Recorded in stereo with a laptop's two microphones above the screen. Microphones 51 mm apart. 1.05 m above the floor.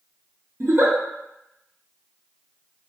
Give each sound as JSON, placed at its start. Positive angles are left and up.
{"t": 0.6, "sound": "a giggle", "side_deg": -55, "distance_m": 0.7}